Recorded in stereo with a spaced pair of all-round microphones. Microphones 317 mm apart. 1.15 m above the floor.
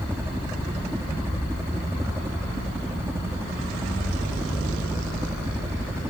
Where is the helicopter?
10° right (ahead or behind).